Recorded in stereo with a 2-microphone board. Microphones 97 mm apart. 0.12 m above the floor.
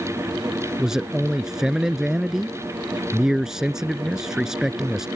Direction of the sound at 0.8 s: 5° right (ahead or behind).